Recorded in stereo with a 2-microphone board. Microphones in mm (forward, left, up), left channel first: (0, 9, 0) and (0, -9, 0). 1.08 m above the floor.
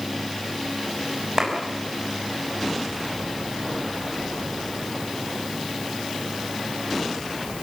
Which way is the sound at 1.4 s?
45° right (ahead or behind).